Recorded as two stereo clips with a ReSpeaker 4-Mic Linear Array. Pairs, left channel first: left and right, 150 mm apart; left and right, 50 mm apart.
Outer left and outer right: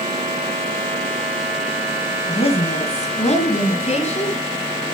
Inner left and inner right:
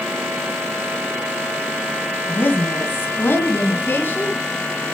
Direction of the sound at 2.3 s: 40° left (ahead or behind).